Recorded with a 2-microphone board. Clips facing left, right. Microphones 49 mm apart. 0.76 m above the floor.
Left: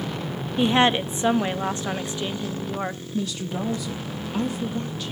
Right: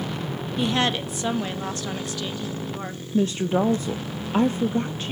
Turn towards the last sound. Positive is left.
turn(degrees=-35)  # may be behind; listen again after turning